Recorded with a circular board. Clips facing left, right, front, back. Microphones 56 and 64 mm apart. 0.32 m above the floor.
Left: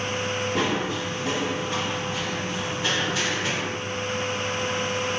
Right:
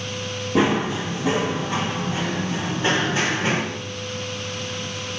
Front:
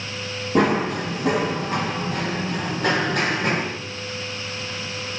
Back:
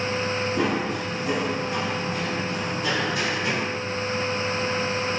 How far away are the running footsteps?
About 6.5 m.